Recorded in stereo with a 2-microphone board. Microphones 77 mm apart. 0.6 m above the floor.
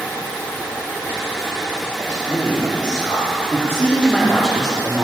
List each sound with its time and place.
2.0 s a man speaking: 60° left (ahead or behind), 2.5 m; by 5.0 s 15° right (ahead or behind), 2 m